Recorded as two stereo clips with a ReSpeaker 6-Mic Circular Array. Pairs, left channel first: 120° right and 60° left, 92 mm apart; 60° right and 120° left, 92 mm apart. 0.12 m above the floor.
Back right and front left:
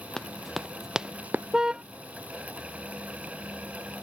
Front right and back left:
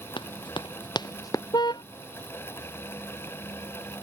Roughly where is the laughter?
No laughter in this recording.